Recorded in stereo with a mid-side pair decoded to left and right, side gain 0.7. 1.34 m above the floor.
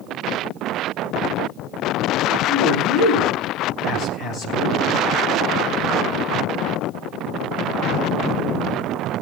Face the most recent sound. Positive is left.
turn(degrees=55)